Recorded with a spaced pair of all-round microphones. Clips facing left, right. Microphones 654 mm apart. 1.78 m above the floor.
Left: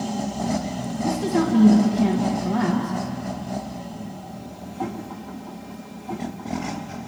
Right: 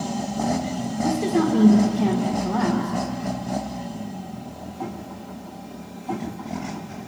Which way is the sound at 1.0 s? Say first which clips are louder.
Right 1 dB; centre (ahead or behind).